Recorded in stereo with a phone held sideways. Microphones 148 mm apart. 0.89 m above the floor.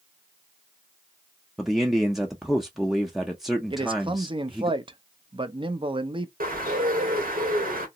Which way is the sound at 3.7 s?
35° right (ahead or behind).